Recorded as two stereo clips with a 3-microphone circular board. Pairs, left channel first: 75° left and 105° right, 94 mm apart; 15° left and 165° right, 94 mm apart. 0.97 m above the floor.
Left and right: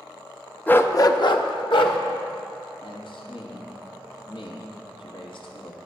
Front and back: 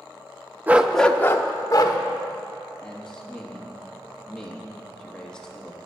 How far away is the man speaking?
About 1.7 m.